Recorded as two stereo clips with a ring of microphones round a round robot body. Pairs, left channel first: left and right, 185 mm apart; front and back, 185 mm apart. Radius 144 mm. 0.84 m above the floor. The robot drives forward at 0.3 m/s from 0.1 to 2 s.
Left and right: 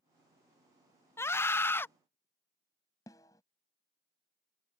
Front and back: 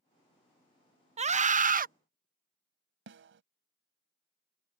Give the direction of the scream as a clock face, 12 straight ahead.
7 o'clock.